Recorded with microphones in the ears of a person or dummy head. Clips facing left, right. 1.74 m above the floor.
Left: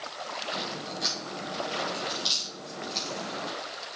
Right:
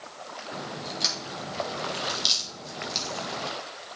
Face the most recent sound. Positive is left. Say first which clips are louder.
# right 3 dB
turn(degrees=-45)  # may be behind; listen again after turning